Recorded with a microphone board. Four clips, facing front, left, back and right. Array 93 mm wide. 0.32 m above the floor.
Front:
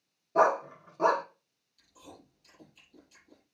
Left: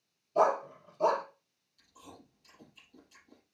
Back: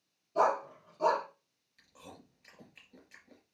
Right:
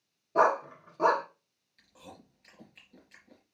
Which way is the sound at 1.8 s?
135° right.